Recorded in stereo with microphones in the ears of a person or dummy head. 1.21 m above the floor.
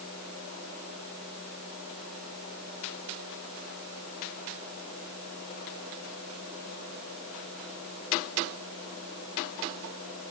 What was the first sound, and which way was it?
Only background noise.